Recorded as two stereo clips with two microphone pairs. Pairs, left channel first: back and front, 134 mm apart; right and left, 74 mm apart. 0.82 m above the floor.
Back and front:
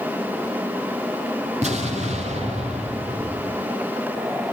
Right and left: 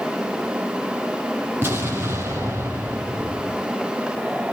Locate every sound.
1.6 s an explosion: 35° left, 6 m